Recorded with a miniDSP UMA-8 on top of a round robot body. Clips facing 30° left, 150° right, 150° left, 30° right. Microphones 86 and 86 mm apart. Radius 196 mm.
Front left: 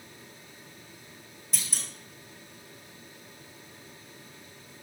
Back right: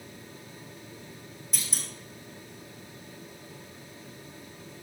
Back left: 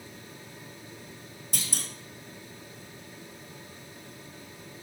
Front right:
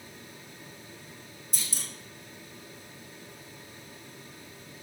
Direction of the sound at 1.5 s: 120° left.